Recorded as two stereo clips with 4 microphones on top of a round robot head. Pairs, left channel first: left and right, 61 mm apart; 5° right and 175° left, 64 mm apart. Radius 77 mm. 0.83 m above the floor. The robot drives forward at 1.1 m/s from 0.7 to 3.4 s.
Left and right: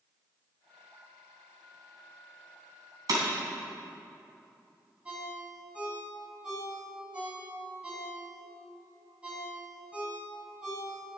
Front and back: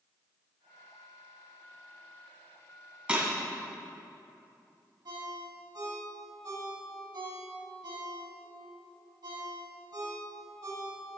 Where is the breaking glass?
110° right, 3 m; by 3.2 s 115° right, 3 m.